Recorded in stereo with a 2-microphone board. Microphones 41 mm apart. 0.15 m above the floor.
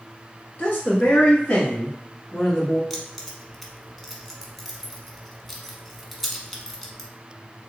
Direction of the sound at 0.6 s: 45° left (ahead or behind).